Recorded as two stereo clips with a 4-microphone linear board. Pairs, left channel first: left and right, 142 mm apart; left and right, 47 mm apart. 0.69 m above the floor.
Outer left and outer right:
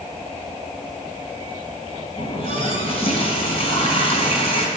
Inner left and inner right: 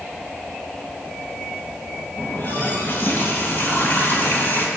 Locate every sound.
2.2 s a running tap: 45° left (ahead or behind), 2.5 m